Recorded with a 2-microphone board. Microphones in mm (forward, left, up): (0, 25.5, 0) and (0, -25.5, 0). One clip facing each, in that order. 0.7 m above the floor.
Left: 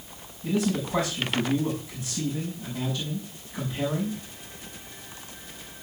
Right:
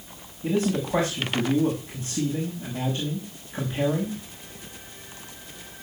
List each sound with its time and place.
0.4 s a man speaking: 35° right (ahead or behind), 5.5 m